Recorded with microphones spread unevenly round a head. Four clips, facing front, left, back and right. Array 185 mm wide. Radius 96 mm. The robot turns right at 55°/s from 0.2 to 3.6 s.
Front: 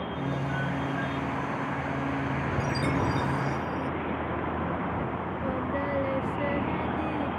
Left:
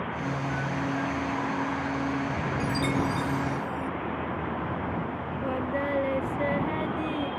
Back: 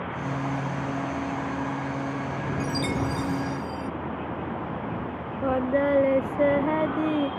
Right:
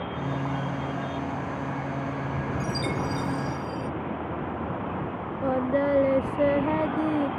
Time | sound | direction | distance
2.6 | a chime | 175° left | ?
5.4 | singing | 145° right | ?